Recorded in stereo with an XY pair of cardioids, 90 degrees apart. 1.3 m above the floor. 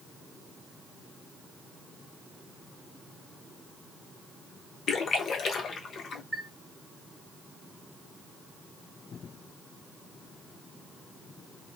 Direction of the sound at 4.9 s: 65° left.